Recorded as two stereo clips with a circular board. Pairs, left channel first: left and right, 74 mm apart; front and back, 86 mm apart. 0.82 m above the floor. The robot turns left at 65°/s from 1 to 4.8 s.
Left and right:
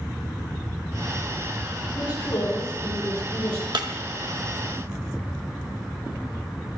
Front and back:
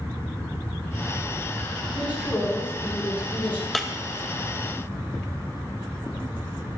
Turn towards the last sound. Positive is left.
turn(degrees=-155)